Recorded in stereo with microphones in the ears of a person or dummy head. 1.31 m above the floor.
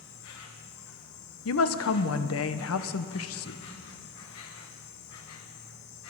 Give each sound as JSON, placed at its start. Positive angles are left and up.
{"t": 0.0, "sound": "an insect", "side_deg": 75, "distance_m": 1.4}
{"t": 1.4, "sound": "a woman speaking", "side_deg": 65, "distance_m": 0.9}